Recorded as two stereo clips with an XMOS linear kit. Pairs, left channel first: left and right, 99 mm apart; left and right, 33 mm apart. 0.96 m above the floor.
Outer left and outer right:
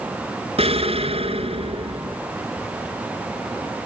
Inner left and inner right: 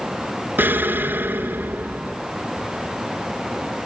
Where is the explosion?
70° right (ahead or behind), 2 m.